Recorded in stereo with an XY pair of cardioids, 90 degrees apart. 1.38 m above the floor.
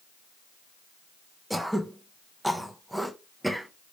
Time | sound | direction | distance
1.5 | throat clearing | 5° right | 0.7 m